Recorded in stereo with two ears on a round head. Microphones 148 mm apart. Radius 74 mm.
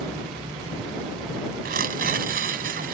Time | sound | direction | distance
1.6 | tearing paper | 60° right (ahead or behind) | ?